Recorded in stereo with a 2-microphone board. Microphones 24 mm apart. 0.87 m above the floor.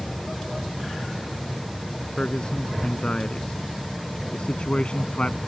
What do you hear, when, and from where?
2.2 s a man speaking: 40° left (ahead or behind); by 5.4 s 50° left (ahead or behind)